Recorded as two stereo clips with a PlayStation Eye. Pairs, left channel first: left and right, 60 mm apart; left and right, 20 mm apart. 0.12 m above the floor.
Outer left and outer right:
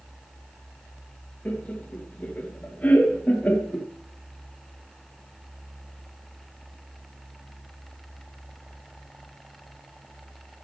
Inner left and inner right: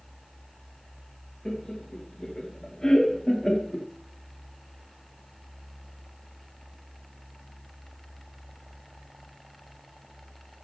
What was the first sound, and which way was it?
Laughter, 30° left (ahead or behind).